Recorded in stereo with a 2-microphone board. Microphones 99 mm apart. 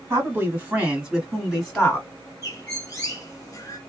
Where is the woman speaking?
25° right (ahead or behind), 1.4 m; by 2.1 s 10° left (ahead or behind), 1.5 m.